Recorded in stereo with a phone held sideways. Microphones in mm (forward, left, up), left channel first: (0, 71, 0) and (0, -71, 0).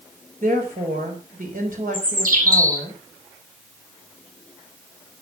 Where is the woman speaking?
75° right (ahead or behind), 4.5 m.